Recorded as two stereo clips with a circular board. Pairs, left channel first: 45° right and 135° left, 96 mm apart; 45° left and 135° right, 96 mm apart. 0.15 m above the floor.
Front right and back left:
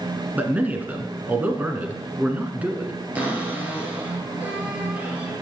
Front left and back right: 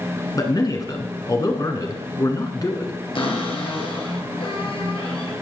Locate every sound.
0.3 s a man speaking: 70° left, 1.4 m
3.1 s a cupboard door: 65° left, 2 m